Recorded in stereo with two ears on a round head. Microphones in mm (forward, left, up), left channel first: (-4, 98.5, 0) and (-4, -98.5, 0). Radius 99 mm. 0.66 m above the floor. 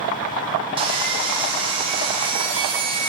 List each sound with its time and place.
0.8 s sawing: 25° right (ahead or behind), 0.8 m